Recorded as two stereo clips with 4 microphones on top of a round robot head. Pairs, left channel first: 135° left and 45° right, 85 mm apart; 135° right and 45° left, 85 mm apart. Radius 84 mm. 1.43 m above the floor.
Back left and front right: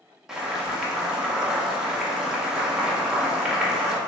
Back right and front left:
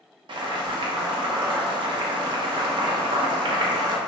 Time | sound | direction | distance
0.3 | boiling | 35° left | 0.6 m